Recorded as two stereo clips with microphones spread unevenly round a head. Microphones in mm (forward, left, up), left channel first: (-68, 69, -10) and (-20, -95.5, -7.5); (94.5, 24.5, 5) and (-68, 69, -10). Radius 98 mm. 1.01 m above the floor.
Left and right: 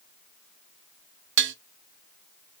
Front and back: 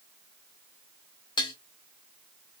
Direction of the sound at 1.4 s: 85° right.